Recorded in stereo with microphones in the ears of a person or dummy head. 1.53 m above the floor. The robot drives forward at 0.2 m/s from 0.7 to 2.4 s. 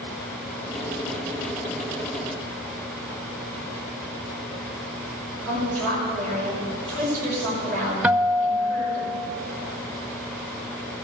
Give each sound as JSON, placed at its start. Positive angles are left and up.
{"t": 5.4, "sound": "a woman speaking", "side_deg": 5, "distance_m": 5.5}
{"t": 8.0, "sound": "a guitar", "side_deg": -5, "distance_m": 0.5}